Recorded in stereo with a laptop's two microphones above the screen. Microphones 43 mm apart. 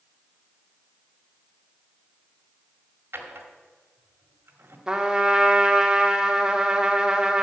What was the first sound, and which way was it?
A drawer, 70° right (ahead or behind).